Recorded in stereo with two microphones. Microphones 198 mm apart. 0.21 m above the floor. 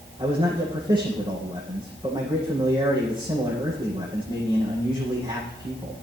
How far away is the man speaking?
About 9 m.